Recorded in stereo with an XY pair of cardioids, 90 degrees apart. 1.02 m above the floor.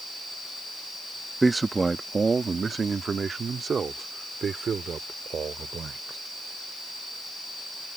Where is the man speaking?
20° right; by 6.2 s 60° right.